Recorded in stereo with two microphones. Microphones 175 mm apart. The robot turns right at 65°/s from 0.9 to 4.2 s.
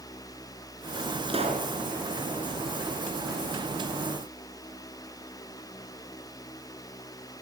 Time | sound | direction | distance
1.3 | a pop | 30° right (ahead or behind) | 4 m